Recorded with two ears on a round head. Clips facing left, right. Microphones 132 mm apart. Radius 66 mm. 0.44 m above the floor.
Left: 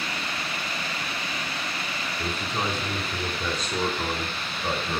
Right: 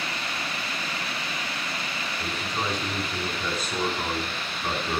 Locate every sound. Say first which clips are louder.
2.2 s a man speaking: left 2 dB; 15° left (ahead or behind), 3 m; by 5.0 s 25° right (ahead or behind), 3 m